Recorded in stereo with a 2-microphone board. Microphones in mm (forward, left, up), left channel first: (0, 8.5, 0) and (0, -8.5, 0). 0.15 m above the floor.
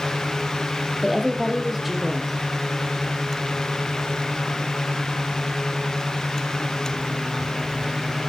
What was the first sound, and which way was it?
A woman speaking, 10° right (ahead or behind).